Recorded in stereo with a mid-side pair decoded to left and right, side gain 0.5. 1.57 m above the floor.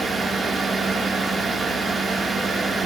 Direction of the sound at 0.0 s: 30° right.